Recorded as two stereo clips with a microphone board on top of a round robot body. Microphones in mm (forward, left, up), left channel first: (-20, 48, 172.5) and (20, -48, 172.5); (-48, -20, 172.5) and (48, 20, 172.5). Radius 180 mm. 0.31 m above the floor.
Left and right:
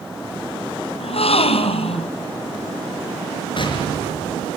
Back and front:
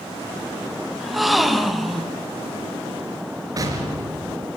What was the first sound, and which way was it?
A gasp, 115° left.